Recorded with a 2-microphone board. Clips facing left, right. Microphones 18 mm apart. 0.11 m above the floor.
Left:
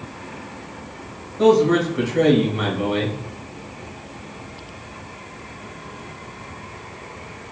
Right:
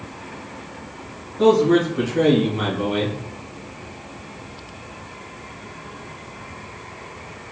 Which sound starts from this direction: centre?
A man speaking, at 1.4 s.